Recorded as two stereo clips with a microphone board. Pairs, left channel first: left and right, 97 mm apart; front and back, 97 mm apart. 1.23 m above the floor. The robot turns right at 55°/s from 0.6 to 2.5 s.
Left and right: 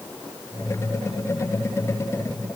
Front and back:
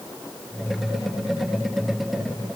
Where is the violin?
No violin in this recording.